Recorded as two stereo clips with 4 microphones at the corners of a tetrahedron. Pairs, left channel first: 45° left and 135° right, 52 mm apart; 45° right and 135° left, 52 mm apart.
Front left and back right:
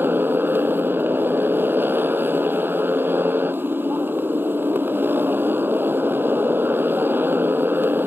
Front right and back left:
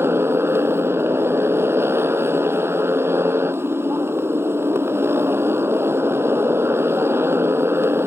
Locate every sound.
0.0 s a motorcycle: 175° left